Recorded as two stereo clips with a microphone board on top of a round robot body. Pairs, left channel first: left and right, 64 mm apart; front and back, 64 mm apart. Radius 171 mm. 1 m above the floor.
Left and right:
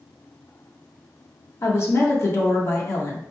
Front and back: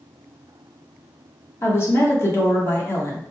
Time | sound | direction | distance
1.6 | a woman speaking | 45° left | 1.3 m